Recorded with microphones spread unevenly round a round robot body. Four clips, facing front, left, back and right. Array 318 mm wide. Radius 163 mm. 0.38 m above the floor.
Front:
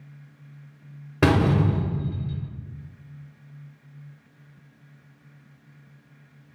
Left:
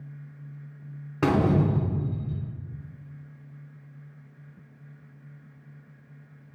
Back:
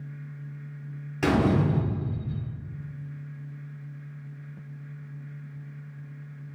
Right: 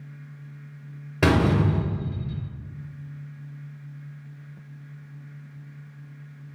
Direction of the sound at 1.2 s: 15° right.